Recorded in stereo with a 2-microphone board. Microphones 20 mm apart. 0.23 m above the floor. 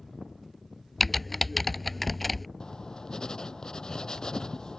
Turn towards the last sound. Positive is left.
turn(degrees=35)  # may be behind; listen again after turning